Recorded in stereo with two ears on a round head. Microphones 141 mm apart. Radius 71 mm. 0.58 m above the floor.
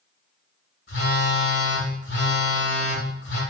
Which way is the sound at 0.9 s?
80° left.